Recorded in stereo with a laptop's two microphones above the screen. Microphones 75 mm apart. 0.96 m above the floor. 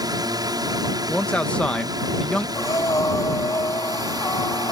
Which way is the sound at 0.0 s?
60° right (ahead or behind).